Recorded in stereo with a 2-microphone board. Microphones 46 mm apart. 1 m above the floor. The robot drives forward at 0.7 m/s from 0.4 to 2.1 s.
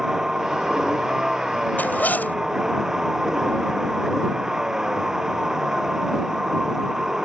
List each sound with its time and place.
0.0 s a vehicle: 15° right (ahead or behind)
1.8 s a zipper: 40° left (ahead or behind)